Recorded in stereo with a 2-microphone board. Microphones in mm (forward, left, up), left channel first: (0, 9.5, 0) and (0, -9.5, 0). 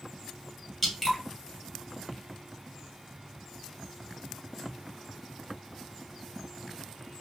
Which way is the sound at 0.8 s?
10° left (ahead or behind).